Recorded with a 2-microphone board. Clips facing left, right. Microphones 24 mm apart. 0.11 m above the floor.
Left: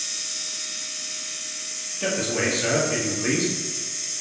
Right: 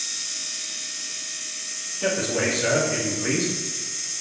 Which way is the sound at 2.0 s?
20° left (ahead or behind).